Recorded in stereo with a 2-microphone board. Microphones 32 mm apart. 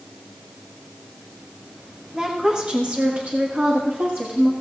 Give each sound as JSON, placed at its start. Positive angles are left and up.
{"t": 2.1, "sound": "a woman speaking", "side_deg": -20, "distance_m": 1.3}